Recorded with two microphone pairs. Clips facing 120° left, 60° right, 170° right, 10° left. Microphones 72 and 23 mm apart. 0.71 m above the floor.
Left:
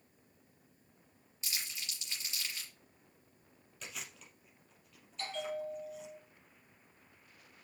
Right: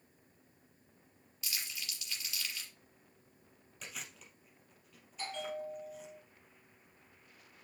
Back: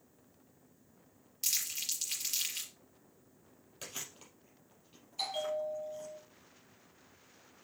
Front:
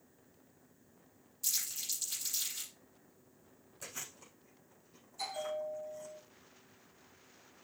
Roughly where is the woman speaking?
No woman speaking in this recording.